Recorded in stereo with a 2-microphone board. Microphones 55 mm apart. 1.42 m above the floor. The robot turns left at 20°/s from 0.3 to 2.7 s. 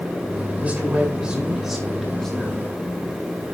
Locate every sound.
0.6 s a man speaking: 155° right, 9.5 m; by 2.8 s 160° left, 9.5 m